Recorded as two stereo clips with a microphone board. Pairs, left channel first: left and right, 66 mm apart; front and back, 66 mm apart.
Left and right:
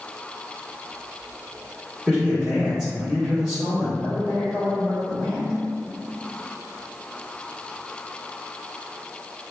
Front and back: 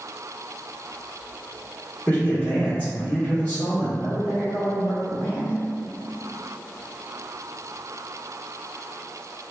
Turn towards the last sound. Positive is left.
turn(degrees=15)